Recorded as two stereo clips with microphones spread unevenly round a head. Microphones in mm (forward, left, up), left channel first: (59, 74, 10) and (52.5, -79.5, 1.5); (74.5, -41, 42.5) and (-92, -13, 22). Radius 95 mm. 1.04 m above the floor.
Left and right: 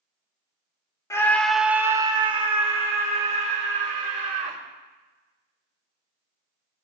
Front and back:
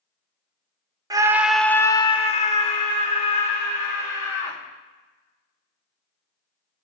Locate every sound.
1.1 s a scream: 150° left, 0.7 m; by 4.6 s 45° right, 2.5 m